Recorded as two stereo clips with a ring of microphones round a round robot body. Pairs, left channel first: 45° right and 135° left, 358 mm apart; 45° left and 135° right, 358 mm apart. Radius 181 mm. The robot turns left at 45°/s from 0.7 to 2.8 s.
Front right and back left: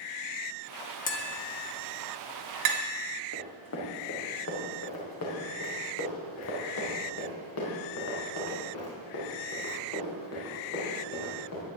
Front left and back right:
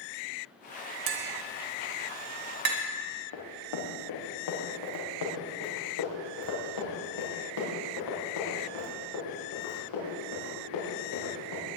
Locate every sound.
1.1 s tapping: 110° right, 1.7 m; by 2.8 s 170° left, 1.7 m
3.3 s running footsteps: 10° left, 4 m; by 11.6 s 5° left, 9.5 m